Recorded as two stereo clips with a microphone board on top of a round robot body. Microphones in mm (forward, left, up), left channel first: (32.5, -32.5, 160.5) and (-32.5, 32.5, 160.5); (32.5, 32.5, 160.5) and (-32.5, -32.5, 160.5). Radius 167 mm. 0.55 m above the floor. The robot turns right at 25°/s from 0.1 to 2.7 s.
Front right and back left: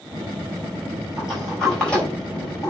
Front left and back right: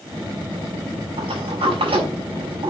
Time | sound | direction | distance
1.2 | a sliding door | 145° right | 6 m